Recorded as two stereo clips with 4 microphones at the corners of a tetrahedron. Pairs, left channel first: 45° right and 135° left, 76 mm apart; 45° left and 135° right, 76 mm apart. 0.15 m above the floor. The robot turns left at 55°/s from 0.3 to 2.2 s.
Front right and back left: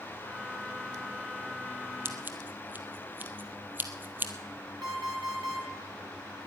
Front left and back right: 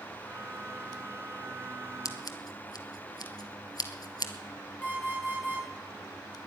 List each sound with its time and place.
2.0 s scissors: 80° left, 1.2 m; by 4.3 s 75° left, 1.2 m
4.8 s an alarm clock: 110° left, 6 m